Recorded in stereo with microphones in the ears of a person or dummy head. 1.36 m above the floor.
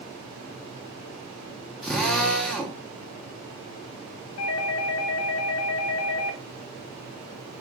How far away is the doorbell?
About 0.9 m.